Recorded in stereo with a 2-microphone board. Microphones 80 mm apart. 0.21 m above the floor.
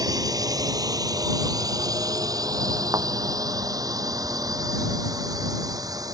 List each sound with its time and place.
0.0 s a drone: 45° right (ahead or behind)
2.9 s a thud: 45° right (ahead or behind)